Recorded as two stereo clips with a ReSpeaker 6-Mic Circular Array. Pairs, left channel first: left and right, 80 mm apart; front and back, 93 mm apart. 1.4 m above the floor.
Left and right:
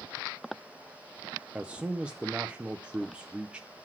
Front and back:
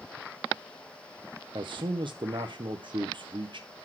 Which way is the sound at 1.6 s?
165° right.